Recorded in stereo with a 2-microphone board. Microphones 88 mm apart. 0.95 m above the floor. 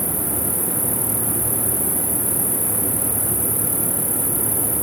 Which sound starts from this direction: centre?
An insect, at 0.0 s.